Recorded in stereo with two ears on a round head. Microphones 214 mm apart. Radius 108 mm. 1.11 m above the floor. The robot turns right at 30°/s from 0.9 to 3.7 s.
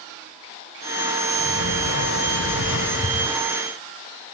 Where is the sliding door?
70° left, 1.7 m; by 3.4 s 130° left, 1.7 m.